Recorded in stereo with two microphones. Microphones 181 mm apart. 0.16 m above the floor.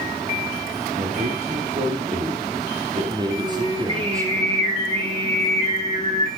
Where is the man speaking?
45° right (ahead or behind), 4.5 m; by 4.4 s 15° right (ahead or behind), 5 m.